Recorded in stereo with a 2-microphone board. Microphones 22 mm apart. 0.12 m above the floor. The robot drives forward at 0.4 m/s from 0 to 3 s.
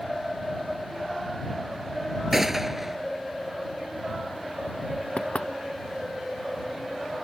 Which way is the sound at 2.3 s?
15° right (ahead or behind).